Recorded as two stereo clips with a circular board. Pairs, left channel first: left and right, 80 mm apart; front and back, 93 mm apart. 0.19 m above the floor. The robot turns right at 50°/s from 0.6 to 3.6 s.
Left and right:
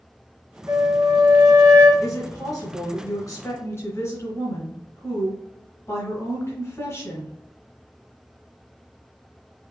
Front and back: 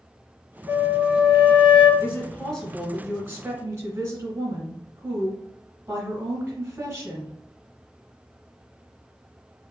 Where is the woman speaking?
40° left, 1.7 m; by 7.3 s 120° left, 1.7 m.